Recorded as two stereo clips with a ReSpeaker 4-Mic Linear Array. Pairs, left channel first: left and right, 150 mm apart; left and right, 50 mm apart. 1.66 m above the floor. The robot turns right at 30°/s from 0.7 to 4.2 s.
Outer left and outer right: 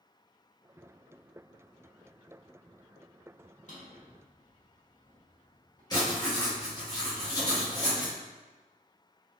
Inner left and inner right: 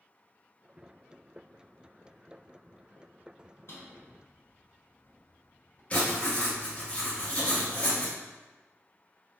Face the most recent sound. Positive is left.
turn(degrees=25)  # may be behind; listen again after turning